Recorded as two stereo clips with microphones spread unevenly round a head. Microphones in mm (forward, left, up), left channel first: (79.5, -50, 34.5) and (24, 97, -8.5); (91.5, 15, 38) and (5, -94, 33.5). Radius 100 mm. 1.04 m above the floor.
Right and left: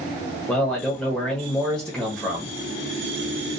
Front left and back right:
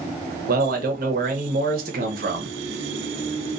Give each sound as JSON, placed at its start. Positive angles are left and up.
{"t": 0.5, "sound": "a man speaking", "azimuth_deg": -160, "distance_m": 0.6}